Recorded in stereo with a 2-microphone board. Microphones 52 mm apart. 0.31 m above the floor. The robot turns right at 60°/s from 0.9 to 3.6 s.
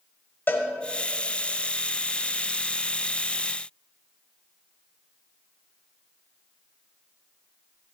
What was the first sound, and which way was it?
A cowbell, 40° left (ahead or behind).